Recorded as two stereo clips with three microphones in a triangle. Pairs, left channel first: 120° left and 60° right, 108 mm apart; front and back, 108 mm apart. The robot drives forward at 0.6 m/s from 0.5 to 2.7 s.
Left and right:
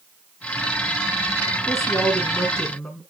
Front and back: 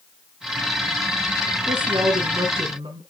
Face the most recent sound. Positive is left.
turn(degrees=-160)